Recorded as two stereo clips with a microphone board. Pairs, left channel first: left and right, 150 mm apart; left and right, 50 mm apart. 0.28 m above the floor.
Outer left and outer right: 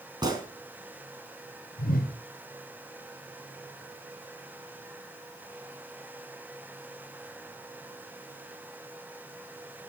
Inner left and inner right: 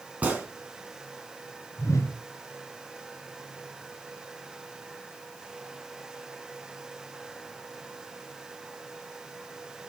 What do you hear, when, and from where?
0.2 s a gunshot: 25° right (ahead or behind), 2 m
1.8 s a whoosh: 75° left (ahead or behind), 1.5 m